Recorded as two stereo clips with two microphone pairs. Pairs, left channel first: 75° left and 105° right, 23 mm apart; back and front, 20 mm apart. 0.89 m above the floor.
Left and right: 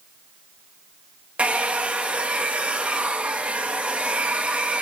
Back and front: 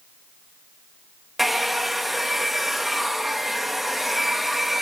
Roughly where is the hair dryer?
Right.